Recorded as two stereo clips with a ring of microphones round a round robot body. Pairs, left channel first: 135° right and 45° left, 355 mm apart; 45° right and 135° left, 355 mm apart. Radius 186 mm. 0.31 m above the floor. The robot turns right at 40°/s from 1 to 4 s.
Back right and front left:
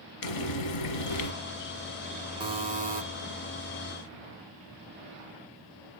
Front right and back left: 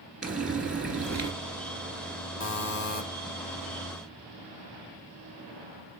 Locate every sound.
0.2 s frying: 135° right, 1.9 m; by 1.3 s 125° right, 1.9 m
2.4 s a buzzer: 25° right, 1.8 m; by 3.0 s straight ahead, 1.8 m